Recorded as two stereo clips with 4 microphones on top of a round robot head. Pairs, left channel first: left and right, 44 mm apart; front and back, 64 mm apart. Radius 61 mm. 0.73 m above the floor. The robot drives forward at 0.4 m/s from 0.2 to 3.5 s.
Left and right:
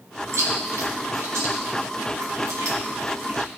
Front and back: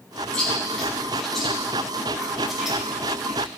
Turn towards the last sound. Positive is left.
turn(degrees=-105)